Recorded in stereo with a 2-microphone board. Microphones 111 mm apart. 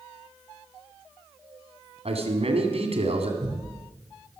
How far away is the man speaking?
About 2 m.